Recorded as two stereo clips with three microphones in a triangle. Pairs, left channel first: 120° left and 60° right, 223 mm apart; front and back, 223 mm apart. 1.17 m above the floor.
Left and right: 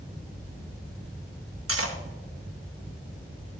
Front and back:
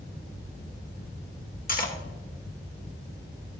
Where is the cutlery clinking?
50° right, 1.1 m.